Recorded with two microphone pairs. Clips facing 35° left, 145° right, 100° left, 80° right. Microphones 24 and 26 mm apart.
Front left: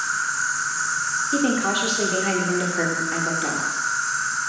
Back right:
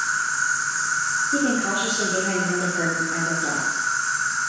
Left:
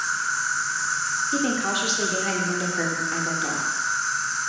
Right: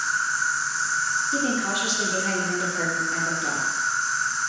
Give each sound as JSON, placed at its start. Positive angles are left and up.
{"t": 0.0, "sound": "an insect", "azimuth_deg": 135, "distance_m": 1.8}
{"t": 1.3, "sound": "a woman speaking", "azimuth_deg": 30, "distance_m": 0.7}